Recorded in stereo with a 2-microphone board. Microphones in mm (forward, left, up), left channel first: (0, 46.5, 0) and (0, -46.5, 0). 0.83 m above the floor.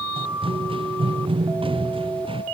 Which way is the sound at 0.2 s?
85° right.